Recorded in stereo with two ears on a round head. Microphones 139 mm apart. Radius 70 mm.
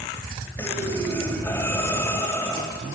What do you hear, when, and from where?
0.6 s breathing: 15° left (ahead or behind), 3 m